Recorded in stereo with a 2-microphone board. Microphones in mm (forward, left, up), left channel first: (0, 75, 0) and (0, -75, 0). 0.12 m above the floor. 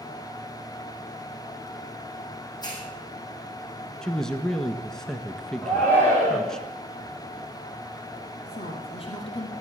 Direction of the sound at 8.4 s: 40° left (ahead or behind).